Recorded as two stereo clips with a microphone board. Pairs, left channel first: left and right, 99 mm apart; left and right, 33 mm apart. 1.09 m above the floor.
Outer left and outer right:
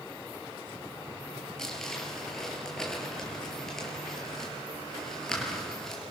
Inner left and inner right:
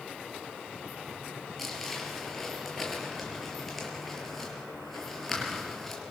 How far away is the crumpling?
About 5.5 m.